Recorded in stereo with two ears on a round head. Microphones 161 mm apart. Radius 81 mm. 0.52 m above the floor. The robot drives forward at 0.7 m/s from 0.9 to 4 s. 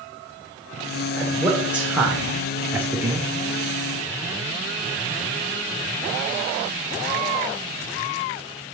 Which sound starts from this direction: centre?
A man speaking, at 1.2 s.